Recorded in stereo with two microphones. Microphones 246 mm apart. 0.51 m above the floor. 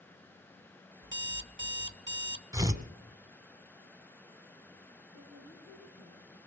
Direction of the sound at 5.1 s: 55° left (ahead or behind).